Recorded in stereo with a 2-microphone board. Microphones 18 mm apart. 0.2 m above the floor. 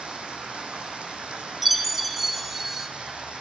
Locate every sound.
0.0 s running water: 75° right (ahead or behind), 2 m
1.6 s a chime: 5° right (ahead or behind), 0.7 m